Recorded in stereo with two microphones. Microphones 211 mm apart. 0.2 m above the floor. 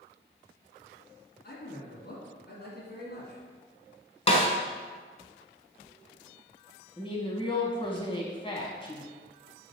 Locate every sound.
1.4 s a man speaking: 50° left (ahead or behind), 2.5 m
4.3 s a snare drum: 25° left (ahead or behind), 1.3 m
7.0 s a woman speaking: 25° left (ahead or behind), 1.5 m